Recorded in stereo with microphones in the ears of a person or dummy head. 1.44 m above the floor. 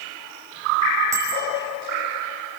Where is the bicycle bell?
20° right (ahead or behind), 5.5 m.